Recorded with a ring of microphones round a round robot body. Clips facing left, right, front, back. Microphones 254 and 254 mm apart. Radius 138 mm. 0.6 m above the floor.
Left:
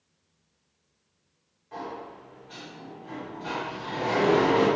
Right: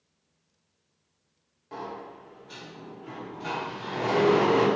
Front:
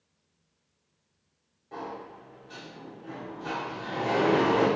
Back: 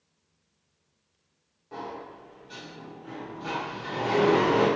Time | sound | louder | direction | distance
1.7 | a sliding door | left 1 dB, back 1 dB | 95° right | 1.1 m